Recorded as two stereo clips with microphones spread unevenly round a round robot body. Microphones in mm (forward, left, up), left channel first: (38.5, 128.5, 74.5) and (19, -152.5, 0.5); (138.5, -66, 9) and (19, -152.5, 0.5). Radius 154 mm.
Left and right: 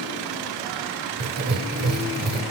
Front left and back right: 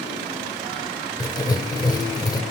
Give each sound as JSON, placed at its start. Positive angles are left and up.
{"t": 1.2, "sound": "writing", "azimuth_deg": -35, "distance_m": 0.7}